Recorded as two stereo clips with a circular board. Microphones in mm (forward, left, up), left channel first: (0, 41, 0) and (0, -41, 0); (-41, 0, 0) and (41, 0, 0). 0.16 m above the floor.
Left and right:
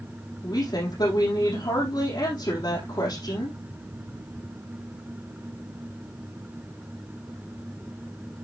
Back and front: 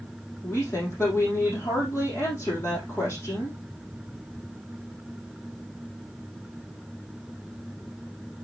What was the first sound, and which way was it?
A woman speaking, 125° left.